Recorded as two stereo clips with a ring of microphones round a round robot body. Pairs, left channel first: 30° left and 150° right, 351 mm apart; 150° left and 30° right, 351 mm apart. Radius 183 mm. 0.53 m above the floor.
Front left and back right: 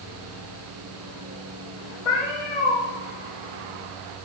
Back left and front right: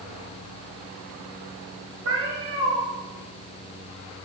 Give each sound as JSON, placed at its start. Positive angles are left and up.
{"t": 2.0, "sound": "a cat meowing", "azimuth_deg": 25, "distance_m": 2.5}